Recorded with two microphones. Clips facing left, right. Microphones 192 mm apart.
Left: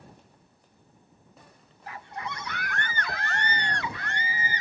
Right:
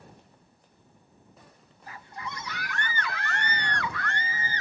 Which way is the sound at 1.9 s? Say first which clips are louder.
Left 3 dB; 70° left (ahead or behind).